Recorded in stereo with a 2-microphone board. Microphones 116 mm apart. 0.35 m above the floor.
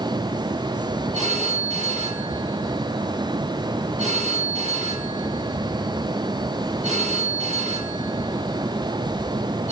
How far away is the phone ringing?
About 4 m.